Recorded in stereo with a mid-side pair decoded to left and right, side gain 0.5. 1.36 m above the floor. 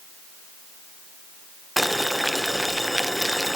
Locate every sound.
1.8 s boiling: straight ahead, 0.9 m